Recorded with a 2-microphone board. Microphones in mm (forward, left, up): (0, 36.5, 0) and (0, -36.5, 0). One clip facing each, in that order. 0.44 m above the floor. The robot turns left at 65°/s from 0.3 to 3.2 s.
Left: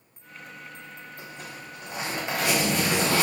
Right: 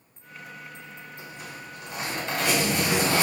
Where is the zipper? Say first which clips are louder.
Even; 95° left, 1.9 m; by 3.2 s 40° right, 1.9 m.